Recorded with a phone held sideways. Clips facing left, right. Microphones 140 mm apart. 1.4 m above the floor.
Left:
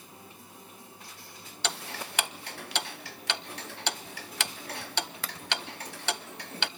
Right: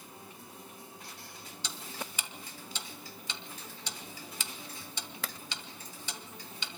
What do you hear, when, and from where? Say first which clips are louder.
1.6 s ticking: left 6 dB; 70° left (ahead or behind), 0.7 m